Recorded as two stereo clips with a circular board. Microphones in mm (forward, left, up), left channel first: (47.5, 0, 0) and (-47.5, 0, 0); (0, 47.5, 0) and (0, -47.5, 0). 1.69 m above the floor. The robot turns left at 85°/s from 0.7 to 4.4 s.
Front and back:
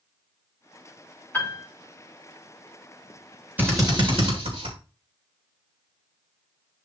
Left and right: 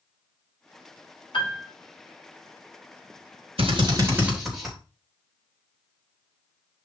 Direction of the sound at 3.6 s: 105° right.